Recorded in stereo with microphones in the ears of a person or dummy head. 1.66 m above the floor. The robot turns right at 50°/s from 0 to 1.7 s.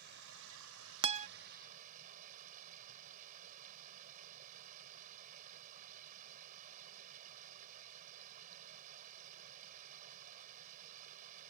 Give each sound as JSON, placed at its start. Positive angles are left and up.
{"t": 0.0, "sound": "running water", "azimuth_deg": -125}
{"t": 1.0, "sound": "a guitar", "side_deg": -30}